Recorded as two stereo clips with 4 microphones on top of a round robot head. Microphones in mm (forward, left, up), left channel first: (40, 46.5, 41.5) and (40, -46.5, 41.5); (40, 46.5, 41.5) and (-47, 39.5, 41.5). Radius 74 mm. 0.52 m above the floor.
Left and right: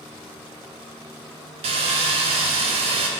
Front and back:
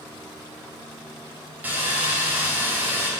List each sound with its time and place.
1.6 s sawing: 100° right, 0.7 m